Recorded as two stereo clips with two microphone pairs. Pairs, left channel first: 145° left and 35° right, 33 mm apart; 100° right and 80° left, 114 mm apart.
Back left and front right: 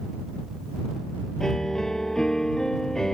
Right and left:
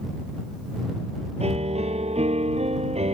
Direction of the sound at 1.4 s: 70° left.